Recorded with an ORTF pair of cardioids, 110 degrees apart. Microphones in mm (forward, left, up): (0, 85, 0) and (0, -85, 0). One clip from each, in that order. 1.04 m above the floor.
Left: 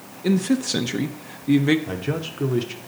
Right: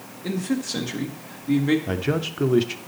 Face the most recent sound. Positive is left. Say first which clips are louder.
# right 3 dB
turn(degrees=-20)